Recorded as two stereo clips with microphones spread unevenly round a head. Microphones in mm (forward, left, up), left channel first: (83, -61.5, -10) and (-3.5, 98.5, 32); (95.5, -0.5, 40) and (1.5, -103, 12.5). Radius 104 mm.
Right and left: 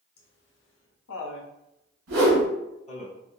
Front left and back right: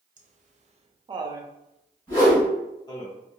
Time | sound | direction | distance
0.2 | laughter | 105° right | 0.9 m
2.1 | a whoosh | 130° left | 1.7 m